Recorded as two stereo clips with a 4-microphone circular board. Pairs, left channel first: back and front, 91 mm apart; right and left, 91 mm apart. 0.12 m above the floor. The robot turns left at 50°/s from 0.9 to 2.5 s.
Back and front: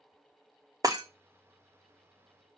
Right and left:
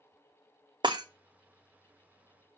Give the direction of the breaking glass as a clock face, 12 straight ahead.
10 o'clock.